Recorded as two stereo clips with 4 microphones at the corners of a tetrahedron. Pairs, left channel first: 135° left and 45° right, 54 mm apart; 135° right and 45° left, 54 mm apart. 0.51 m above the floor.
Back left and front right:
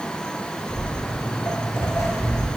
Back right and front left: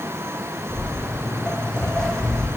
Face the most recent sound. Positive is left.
turn(degrees=145)